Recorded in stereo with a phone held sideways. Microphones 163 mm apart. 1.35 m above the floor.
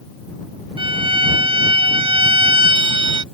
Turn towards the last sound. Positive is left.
turn(degrees=-35)  # may be behind; listen again after turning